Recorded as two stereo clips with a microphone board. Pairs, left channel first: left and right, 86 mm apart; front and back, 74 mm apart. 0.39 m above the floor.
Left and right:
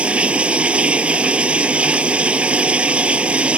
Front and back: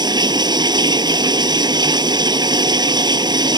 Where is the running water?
165° right.